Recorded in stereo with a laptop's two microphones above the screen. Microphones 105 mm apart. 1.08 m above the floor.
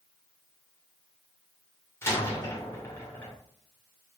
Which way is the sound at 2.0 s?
25° left (ahead or behind).